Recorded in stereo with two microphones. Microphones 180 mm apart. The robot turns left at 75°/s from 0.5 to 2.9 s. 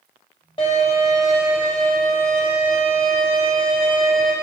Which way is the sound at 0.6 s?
55° left.